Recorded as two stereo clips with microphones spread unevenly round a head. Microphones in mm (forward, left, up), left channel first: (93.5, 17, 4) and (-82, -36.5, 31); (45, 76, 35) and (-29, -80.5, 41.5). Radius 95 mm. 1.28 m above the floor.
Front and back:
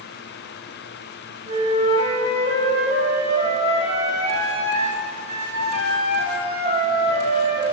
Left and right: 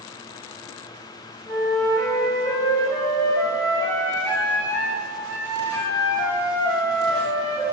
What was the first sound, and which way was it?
A flute, 145° left.